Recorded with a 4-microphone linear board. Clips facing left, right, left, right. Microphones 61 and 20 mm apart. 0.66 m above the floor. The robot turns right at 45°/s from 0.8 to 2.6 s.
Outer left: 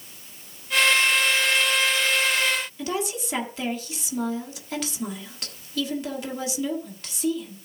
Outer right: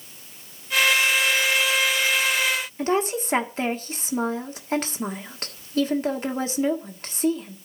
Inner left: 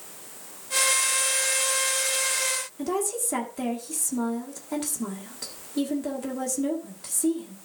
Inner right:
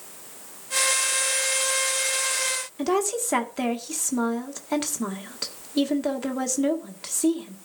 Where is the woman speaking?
40° right (ahead or behind), 1.6 m.